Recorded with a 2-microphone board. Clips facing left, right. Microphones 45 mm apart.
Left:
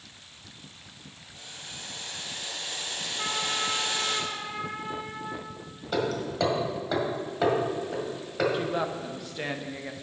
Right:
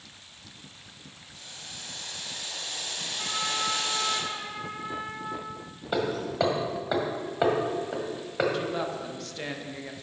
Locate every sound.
1.3 s boiling: 25° left (ahead or behind), 2.5 m
3.2 s a trumpet: 25° left (ahead or behind), 1.5 m
5.9 s hammering: 15° right (ahead or behind), 1.7 m
8.5 s a woman speaking: 10° left (ahead or behind), 0.8 m